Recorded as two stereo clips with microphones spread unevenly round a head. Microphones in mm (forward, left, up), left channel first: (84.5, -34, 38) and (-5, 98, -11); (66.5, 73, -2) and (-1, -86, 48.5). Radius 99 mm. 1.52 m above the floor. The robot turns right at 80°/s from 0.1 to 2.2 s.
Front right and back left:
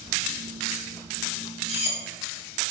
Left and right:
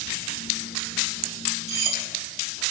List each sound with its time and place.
1.7 s cutlery clinking: 95° right, 0.9 m; by 2.0 s 65° right, 0.9 m